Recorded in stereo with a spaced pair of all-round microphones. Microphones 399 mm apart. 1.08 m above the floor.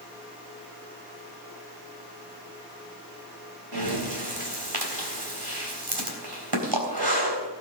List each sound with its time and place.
3.7 s breathing: 70° right (ahead or behind), 3.5 m